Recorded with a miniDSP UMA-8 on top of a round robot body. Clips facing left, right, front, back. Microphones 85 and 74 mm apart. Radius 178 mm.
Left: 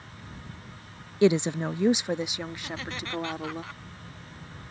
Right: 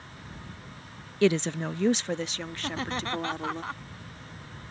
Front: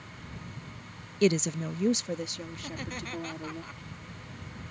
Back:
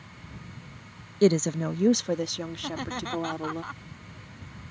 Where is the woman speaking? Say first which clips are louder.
Left 2 dB, back 4 dB; 155° left; by 3.6 s 170° left.